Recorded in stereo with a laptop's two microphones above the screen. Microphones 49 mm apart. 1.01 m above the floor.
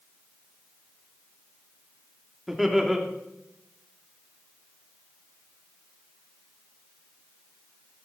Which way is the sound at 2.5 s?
5° right (ahead or behind).